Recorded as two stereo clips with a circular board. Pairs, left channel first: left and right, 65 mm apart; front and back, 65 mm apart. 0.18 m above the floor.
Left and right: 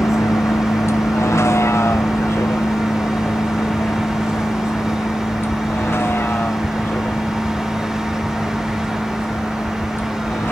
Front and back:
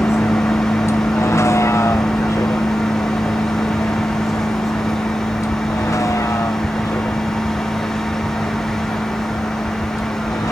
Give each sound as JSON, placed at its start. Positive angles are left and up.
{"t": 0.0, "sound": "a vehicle", "azimuth_deg": 45}